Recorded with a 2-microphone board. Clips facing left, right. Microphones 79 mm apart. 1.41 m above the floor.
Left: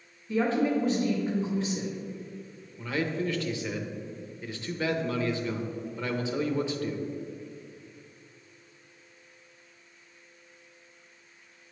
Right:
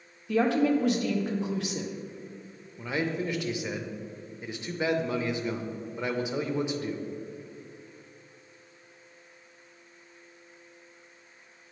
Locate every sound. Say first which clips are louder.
0.3 s a woman speaking: right 2 dB; 75° right (ahead or behind), 1.0 m
2.8 s a man speaking: even; 15° right (ahead or behind), 0.7 m